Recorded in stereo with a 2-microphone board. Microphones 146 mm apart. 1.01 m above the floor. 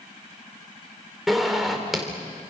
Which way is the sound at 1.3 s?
Centre (ahead or behind).